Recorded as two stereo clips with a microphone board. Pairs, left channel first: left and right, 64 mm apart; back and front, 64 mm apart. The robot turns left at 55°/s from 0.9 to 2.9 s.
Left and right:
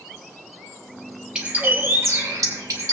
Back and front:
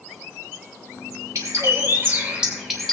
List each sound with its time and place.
1.4 s a bird: 15° right, 2 m; by 2.9 s 100° right, 2 m